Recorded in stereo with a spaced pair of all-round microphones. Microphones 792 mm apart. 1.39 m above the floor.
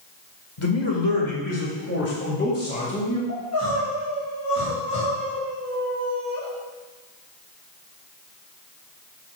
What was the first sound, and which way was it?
A man speaking, 40° left (ahead or behind).